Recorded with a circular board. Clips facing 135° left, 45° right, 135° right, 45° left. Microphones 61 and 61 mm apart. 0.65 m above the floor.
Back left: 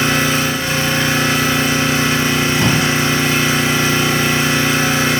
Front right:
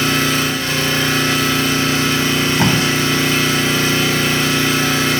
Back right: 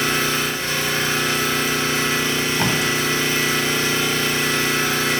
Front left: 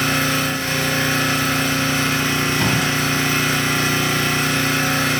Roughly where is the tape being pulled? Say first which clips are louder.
Front right 2 dB, even; ahead right.